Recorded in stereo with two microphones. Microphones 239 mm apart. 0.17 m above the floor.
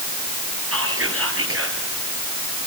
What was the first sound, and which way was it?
Whispering, 65° right (ahead or behind).